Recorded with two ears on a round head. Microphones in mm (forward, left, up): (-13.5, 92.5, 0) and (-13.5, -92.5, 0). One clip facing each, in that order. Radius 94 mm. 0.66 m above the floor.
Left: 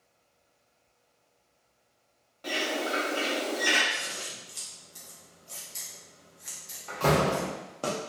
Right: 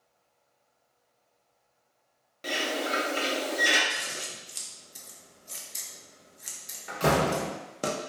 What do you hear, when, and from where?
2.4 s a bird: 25° right (ahead or behind), 0.5 m
3.9 s scissors: 20° right (ahead or behind), 0.5 m
6.9 s a door slam: 15° right (ahead or behind), 0.7 m